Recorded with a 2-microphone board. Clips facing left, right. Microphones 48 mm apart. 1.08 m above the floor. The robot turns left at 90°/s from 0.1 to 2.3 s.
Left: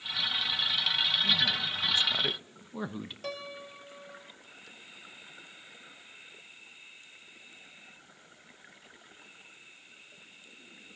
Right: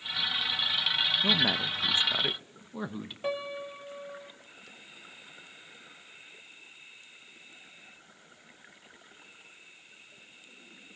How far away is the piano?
About 0.6 m.